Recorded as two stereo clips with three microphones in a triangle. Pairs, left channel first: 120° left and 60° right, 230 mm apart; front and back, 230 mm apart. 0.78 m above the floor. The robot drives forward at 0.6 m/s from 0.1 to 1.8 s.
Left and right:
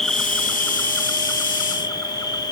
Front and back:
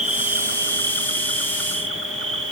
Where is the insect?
155° right, 1.0 m; by 2.5 s 170° right, 1.8 m.